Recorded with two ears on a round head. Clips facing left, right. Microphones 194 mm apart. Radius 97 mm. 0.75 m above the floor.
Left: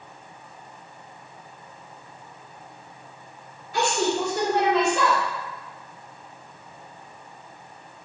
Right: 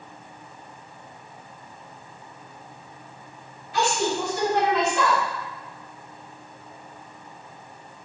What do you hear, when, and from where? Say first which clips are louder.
3.7 s a woman speaking: left 1 dB; 40° left (ahead or behind), 1.9 m